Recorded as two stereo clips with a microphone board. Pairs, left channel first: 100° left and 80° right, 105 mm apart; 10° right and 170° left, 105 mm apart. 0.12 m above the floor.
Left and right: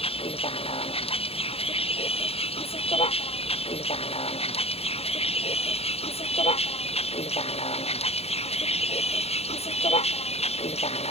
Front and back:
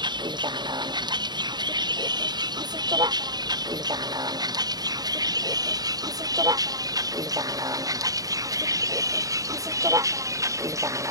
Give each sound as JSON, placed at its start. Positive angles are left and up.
{"t": 0.0, "sound": "a vehicle", "azimuth_deg": 125}